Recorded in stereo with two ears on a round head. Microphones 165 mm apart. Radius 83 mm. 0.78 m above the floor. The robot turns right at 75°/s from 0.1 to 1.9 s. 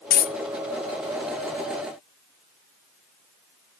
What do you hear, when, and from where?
0.1 s a dropped coin: 55° left (ahead or behind), 0.5 m; by 0.3 s 50° left (ahead or behind), 0.5 m